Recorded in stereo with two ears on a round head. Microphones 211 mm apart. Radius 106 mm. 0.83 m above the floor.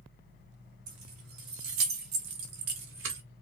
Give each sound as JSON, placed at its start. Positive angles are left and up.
{"t": 0.9, "sound": "keys jangling", "side_deg": -85, "distance_m": 1.8}